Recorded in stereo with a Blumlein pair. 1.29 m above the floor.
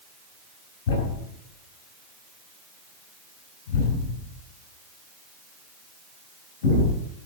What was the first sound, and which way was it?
A thud, 55° left.